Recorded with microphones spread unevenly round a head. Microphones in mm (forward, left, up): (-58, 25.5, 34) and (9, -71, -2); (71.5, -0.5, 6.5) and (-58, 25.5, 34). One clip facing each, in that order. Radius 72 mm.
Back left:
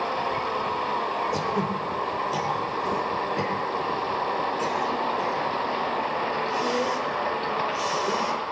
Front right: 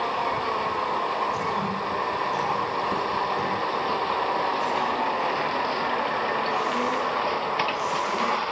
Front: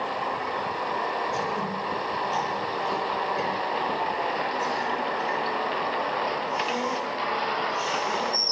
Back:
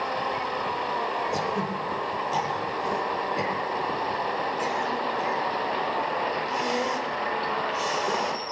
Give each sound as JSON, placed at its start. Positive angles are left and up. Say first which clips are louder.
{"t": 1.3, "sound": "throat clearing", "louder": "back left 1 dB, back 1 dB", "azimuth_deg": 110, "distance_m": 10.0}